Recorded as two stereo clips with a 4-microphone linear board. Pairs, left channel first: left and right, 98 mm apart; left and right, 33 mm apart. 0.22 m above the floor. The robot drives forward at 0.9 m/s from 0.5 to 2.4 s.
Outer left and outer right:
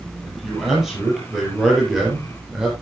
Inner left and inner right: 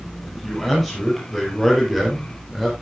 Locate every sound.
0.2 s a man speaking: 5° right (ahead or behind), 6.5 m